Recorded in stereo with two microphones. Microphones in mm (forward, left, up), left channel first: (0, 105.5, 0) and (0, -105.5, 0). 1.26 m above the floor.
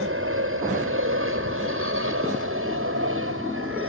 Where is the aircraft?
75° right (ahead or behind).